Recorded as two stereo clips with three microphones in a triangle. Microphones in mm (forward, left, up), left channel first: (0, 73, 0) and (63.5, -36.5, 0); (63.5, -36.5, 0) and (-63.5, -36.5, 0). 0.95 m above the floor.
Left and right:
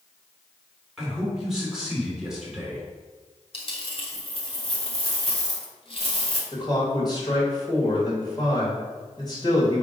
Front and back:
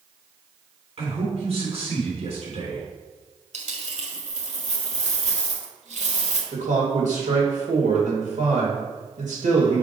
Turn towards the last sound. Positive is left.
turn(degrees=175)